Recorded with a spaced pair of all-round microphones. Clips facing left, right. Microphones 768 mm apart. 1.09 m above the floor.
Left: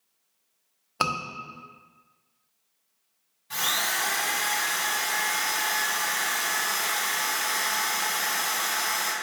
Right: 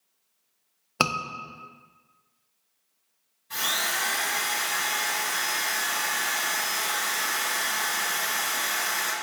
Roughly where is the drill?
Left.